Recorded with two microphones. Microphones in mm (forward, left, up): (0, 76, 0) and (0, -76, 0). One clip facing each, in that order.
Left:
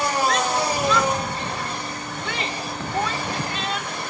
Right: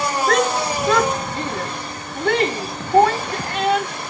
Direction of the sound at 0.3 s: 65° right (ahead or behind).